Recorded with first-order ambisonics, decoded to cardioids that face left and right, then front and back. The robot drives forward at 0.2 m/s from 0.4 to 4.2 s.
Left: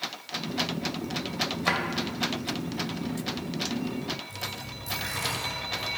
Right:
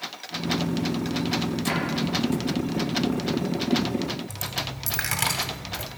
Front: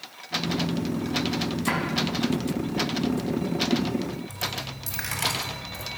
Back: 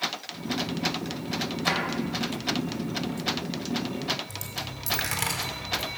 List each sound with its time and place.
1.7 s a drawer: 120° left, 2.5 m
4.3 s a dropped coin: 110° right, 1.2 m